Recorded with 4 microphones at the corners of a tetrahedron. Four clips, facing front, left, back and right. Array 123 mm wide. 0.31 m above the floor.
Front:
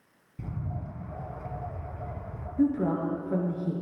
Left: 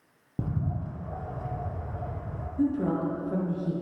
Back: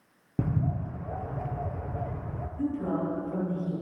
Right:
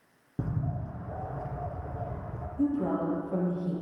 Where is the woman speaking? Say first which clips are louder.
Left 1 dB, front 4 dB; 25° left, 5 m.